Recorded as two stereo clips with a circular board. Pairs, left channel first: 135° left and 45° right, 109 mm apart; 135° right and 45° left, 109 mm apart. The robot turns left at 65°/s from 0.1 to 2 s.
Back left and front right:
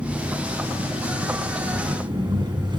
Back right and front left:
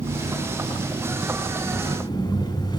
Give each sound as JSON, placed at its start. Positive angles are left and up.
{"t": 0.0, "sound": "an engine running", "azimuth_deg": 35, "distance_m": 2.0}